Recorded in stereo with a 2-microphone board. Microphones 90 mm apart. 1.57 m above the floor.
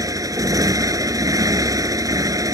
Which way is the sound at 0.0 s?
40° right (ahead or behind).